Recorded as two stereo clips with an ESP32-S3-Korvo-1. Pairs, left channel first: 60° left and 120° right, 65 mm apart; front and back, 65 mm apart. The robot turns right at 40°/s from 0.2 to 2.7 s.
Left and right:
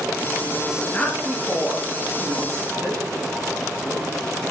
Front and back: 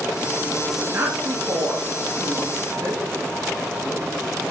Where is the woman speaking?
120° left, 1.8 m; by 3.0 s 160° right, 1.8 m.